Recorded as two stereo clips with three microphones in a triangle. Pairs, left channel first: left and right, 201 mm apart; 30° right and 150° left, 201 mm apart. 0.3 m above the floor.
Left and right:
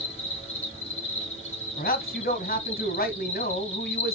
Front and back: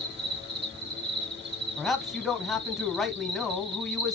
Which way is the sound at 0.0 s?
140° left.